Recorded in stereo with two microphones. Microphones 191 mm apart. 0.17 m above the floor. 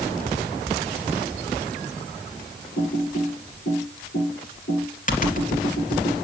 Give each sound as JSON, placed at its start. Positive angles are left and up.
{"t": 2.8, "sound": "typing on a keyboard", "side_deg": 45, "distance_m": 3.0}